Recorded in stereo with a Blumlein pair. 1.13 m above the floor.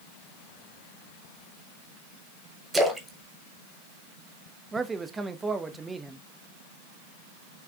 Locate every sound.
2.7 s a splash: 10° right, 1.1 m
4.7 s a man speaking: 15° right, 0.6 m